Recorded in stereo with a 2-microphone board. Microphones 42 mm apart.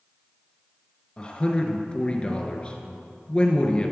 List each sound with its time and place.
1.2 s a man speaking: 25° left (ahead or behind), 1.4 m